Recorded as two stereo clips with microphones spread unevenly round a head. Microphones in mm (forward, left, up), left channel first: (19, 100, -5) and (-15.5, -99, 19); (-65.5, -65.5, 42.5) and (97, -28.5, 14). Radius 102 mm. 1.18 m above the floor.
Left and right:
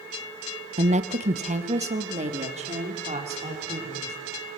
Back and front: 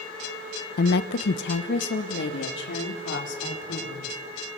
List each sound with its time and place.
0.8 s a woman speaking: 160° right, 0.8 m